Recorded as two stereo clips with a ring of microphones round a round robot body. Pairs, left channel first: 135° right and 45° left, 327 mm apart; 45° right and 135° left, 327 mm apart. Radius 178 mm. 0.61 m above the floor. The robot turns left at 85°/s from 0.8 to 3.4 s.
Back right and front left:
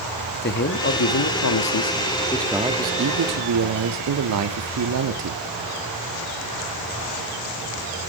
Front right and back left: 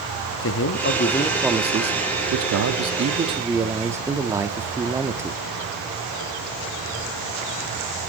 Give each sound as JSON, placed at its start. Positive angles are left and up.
{"t": 0.4, "sound": "a man speaking", "azimuth_deg": -85, "distance_m": 1.3}